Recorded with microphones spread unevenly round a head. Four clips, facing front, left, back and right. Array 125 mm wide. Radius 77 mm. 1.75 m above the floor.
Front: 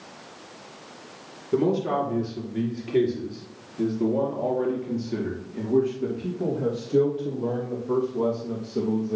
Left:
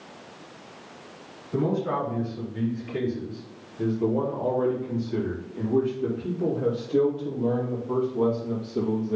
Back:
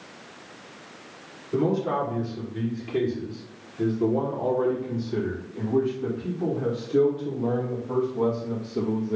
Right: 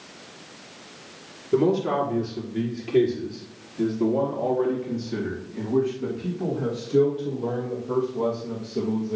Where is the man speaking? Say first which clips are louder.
Right 5 dB, front 1 dB; 45° right, 5 m; by 9.2 s 20° left, 6.5 m.